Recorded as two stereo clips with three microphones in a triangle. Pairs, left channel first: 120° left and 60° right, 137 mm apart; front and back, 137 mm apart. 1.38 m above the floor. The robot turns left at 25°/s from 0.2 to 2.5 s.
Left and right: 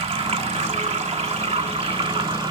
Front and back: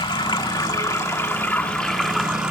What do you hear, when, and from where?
0.0 s running water: 40° right, 1.2 m; by 2.5 s 100° right, 1.2 m